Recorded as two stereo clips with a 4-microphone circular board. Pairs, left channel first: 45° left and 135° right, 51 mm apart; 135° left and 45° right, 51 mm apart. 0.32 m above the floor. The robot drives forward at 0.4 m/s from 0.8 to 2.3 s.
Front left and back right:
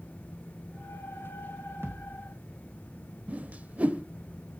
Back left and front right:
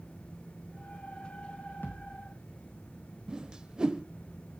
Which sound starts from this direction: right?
A whoosh, at 3.3 s.